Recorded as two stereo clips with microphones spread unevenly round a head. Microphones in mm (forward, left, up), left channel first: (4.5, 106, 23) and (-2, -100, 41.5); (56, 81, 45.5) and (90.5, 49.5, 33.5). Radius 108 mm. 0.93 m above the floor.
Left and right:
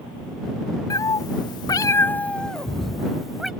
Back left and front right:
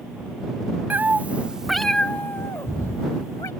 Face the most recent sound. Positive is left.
turn(degrees=180)